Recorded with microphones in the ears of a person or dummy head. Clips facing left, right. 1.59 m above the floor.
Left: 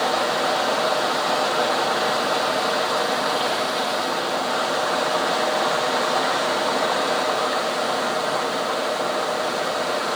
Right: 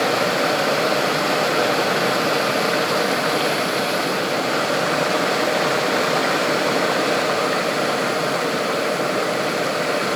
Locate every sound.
0.0 s running water: 30° right (ahead or behind), 0.9 m